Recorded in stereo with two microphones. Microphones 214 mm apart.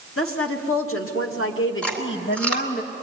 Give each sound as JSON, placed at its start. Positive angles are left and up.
{"t": 0.2, "sound": "a woman speaking", "side_deg": 80, "distance_m": 2.5}
{"t": 1.8, "sound": "chewing", "side_deg": 5, "distance_m": 3.5}